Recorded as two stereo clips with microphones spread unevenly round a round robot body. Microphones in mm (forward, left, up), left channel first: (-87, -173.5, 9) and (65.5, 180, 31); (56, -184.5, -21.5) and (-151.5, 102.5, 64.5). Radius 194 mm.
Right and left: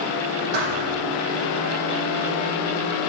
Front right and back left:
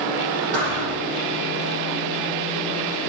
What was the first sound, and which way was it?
A thud, 95° left.